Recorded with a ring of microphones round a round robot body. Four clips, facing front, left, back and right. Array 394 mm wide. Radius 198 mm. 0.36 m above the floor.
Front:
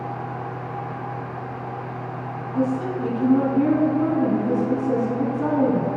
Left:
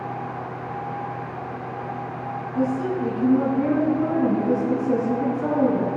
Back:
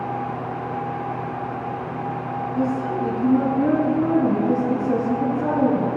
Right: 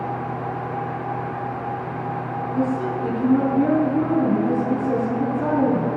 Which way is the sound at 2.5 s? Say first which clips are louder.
Even, front 1 dB; 35° right.